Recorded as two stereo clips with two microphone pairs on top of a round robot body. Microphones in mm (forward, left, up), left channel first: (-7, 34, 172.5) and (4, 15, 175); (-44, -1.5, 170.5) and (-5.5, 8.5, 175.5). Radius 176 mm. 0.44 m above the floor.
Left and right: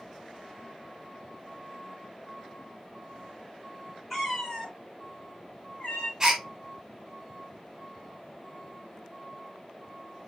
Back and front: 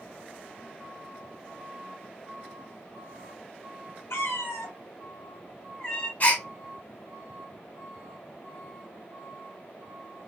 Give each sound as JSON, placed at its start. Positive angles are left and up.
{"t": 4.1, "sound": "a cat meowing", "azimuth_deg": -160, "distance_m": 1.0}
{"t": 6.2, "sound": "a gasp", "azimuth_deg": -125, "distance_m": 1.3}